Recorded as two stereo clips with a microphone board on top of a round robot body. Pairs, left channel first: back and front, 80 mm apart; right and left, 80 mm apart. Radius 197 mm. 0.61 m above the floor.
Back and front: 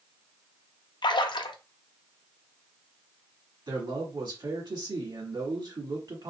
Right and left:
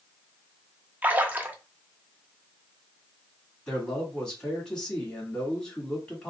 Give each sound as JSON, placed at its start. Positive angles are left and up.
{"t": 1.0, "sound": "a splash", "azimuth_deg": 160, "distance_m": 0.6}
{"t": 3.7, "sound": "a man speaking", "azimuth_deg": -10, "distance_m": 1.6}